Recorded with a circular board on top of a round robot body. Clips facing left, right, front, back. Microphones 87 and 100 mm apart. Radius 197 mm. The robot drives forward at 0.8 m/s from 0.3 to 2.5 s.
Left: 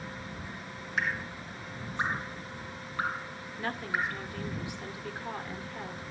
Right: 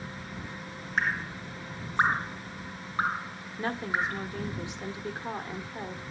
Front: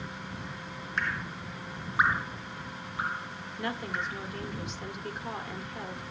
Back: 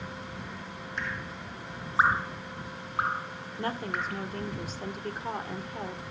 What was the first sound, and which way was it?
Dripping, 35° right.